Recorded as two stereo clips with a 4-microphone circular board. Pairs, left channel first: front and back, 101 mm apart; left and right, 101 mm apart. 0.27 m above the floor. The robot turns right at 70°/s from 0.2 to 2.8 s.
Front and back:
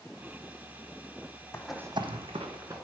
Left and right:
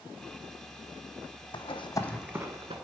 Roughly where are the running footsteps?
Ahead left.